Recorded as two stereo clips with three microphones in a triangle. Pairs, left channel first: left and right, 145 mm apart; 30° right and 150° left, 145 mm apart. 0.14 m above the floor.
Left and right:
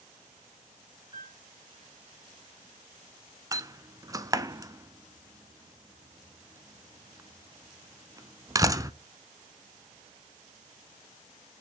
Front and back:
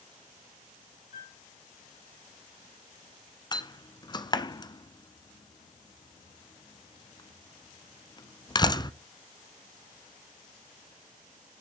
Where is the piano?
30° right, 7 m.